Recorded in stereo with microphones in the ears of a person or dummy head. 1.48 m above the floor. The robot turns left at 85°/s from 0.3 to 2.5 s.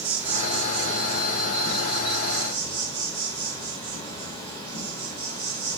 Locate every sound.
0.0 s an insect: 5° right, 0.7 m; by 5.8 s 165° left, 0.7 m